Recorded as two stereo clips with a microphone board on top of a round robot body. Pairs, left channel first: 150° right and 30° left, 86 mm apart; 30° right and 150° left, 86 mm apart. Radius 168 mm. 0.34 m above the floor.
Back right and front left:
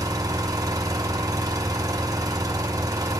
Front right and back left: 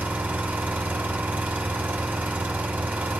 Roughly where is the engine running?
Left.